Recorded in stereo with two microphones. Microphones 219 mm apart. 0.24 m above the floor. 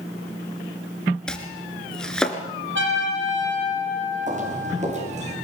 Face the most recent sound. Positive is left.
turn(degrees=-30)  # may be behind; listen again after turning